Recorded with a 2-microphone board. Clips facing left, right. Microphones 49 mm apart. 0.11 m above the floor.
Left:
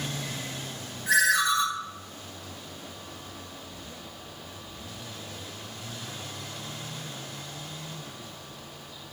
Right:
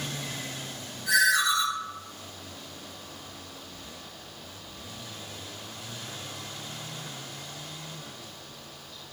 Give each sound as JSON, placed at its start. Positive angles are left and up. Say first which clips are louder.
{"t": 1.1, "sound": "a ringtone", "louder": "even", "side_deg": 30, "distance_m": 1.4}